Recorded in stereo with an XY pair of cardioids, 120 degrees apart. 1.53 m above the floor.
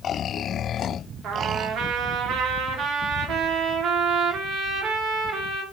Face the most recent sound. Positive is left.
turn(degrees=-65)